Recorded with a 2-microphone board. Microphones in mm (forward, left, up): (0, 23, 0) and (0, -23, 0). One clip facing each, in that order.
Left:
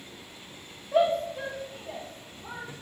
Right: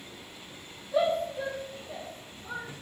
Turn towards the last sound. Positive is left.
turn(degrees=65)  # may be behind; listen again after turning